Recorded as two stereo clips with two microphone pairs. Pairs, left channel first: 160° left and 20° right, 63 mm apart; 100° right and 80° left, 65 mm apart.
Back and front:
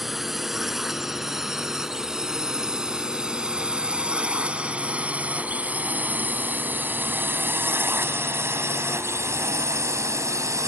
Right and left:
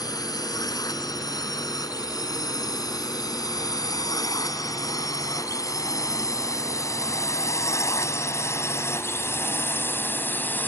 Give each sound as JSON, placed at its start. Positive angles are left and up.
{"t": 0.0, "sound": "a drone", "azimuth_deg": -105}